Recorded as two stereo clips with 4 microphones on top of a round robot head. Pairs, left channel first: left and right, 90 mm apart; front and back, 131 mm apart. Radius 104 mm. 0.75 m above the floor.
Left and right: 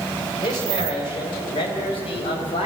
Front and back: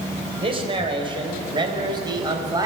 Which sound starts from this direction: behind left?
A man speaking, at 0.4 s.